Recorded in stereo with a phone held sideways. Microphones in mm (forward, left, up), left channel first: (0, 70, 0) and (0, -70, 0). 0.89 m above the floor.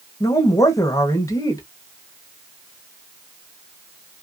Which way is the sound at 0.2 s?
25° left (ahead or behind).